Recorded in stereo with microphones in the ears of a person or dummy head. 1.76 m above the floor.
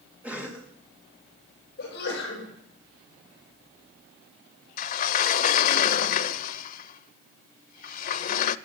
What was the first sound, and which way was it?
A cough, 10° right (ahead or behind).